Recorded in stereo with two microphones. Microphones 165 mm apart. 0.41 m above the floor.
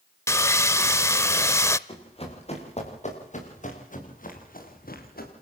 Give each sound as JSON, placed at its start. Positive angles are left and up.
{"t": 0.3, "sound": "sawing", "side_deg": 15, "distance_m": 0.6}
{"t": 1.9, "sound": "running footsteps", "side_deg": 35, "distance_m": 7.5}